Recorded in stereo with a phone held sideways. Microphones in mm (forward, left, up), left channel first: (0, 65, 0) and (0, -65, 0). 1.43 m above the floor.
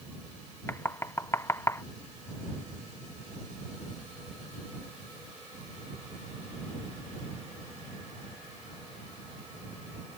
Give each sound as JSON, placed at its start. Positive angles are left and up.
{"t": 0.7, "sound": "knocking", "side_deg": 20}